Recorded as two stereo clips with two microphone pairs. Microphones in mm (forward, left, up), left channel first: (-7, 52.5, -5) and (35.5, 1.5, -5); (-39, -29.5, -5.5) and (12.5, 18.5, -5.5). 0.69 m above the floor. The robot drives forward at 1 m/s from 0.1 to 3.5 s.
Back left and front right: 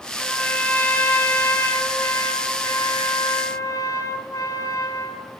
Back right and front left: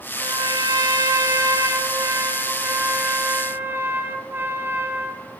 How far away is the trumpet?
About 5 m.